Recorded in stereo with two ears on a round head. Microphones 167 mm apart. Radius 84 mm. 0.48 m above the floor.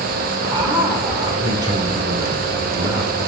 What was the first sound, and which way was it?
A man speaking, 20° right (ahead or behind).